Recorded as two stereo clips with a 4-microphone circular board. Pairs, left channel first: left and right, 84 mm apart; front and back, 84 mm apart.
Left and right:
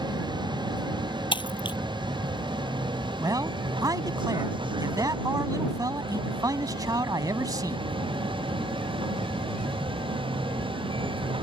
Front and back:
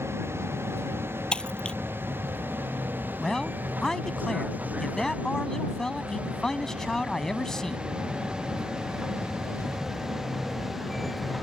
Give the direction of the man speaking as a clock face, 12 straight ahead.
3 o'clock.